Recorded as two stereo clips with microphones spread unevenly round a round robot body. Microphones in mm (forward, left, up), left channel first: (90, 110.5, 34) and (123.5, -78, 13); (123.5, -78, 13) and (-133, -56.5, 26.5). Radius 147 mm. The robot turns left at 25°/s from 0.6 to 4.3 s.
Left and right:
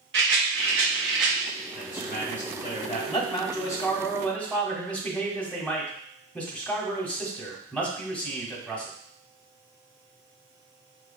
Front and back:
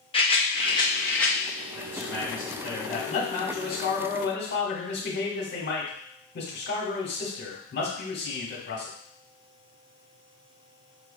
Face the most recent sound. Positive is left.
turn(degrees=10)